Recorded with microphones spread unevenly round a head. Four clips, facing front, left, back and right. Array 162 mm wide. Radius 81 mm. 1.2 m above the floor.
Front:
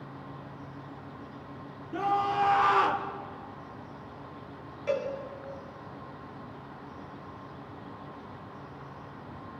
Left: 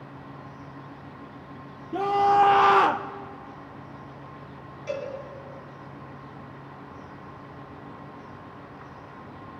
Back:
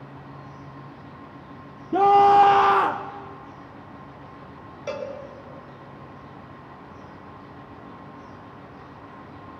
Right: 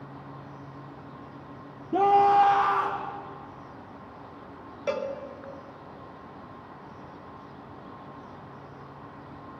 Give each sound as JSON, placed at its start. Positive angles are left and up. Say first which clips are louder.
{"t": 1.9, "sound": "a scream", "louder": "right 1 dB, back 13 dB", "azimuth_deg": -160, "distance_m": 0.9}
{"t": 4.9, "sound": "a cowbell", "louder": "right 3 dB, front 1 dB", "azimuth_deg": -115, "distance_m": 1.9}